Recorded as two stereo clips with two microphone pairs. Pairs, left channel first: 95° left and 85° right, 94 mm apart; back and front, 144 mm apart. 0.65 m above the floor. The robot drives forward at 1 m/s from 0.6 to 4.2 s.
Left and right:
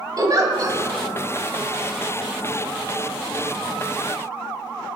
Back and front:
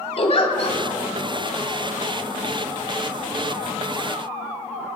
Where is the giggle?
135° right, 1.8 m; by 0.8 s 140° right, 1.9 m.